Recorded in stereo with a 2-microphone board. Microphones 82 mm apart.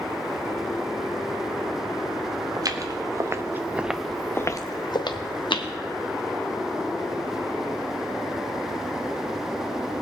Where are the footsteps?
50° right (ahead or behind), 1.7 m; by 5.7 s 80° left, 1.6 m.